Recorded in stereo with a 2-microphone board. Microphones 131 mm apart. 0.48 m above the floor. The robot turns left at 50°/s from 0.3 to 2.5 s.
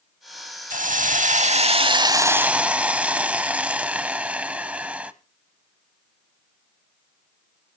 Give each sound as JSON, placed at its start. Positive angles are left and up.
{"t": 0.7, "sound": "a hiss", "azimuth_deg": -80, "distance_m": 0.7}